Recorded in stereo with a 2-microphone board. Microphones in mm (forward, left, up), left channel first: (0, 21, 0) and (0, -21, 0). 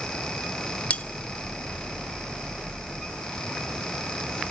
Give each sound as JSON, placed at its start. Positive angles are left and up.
{"t": 0.9, "sound": "cutlery clinking", "side_deg": 30, "distance_m": 0.7}